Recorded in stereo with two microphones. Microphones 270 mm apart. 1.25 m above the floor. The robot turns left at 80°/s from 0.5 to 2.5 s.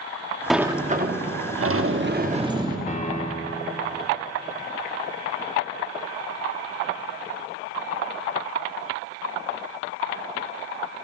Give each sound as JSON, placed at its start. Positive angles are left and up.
{"t": 0.5, "sound": "a sliding door", "azimuth_deg": 0, "distance_m": 1.0}
{"t": 2.9, "sound": "a piano", "side_deg": 25, "distance_m": 1.0}